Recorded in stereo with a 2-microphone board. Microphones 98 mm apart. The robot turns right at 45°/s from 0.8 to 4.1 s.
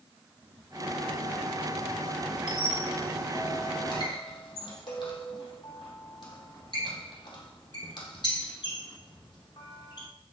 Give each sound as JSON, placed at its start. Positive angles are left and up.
{"t": 2.5, "sound": "a squeak", "side_deg": -10, "distance_m": 1.6}